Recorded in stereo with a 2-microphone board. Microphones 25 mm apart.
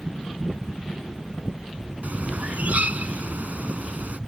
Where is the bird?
75° right (ahead or behind).